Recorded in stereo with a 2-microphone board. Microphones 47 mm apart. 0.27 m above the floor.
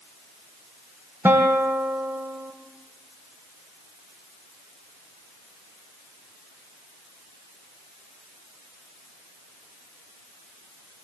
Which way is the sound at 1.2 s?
50° right (ahead or behind).